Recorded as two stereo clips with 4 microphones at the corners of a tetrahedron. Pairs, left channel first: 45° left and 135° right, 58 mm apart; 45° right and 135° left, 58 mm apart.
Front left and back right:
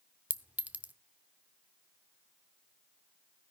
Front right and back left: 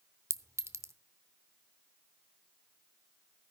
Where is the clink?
165° left, 0.6 m.